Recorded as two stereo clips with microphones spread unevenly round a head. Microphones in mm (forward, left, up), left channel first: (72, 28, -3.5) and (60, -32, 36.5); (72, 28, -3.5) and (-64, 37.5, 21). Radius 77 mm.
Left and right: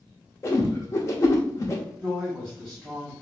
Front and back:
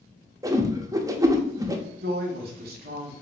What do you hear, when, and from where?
0.4 s a whoosh: 105° left, 0.8 m
2.0 s a woman speaking: 170° left, 1.7 m